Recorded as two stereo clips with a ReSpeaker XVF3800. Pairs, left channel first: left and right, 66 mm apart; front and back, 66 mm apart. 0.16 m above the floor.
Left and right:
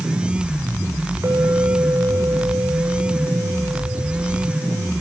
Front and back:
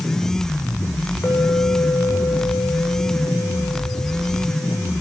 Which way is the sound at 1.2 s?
55° right.